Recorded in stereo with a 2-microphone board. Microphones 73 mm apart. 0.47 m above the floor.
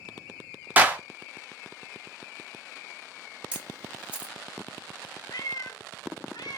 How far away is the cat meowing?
About 0.6 m.